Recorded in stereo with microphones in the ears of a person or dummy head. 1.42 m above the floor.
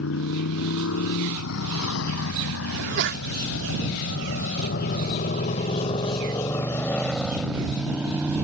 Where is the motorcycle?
70° left (ahead or behind); by 8.4 s 10° right (ahead or behind).